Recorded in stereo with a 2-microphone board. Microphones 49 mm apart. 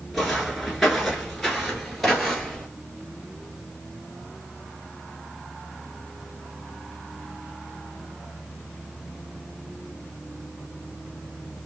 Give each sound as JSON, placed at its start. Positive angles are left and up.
{"t": 0.1, "sound": "footsteps", "side_deg": 5, "distance_m": 1.5}